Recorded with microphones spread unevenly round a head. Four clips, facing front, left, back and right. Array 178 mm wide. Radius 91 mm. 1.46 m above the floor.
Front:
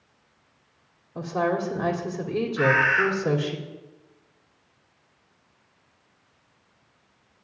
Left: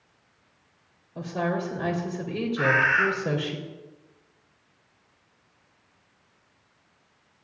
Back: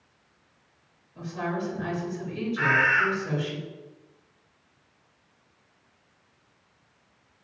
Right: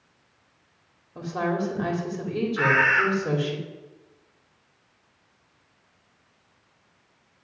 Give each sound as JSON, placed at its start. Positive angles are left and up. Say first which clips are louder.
{"t": 1.1, "sound": "a woman speaking", "louder": "right 1 dB, front 6 dB", "azimuth_deg": -5, "distance_m": 3.5}
{"t": 2.6, "sound": "a bird", "louder": "right 1 dB, front 2 dB", "azimuth_deg": -105, "distance_m": 6.0}